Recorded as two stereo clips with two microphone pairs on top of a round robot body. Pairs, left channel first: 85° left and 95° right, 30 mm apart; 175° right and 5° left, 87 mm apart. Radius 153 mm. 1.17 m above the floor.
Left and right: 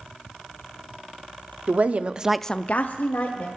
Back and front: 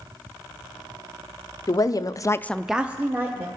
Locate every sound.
1.7 s a woman speaking: 125° right, 0.9 m; by 3.5 s 70° left, 1.3 m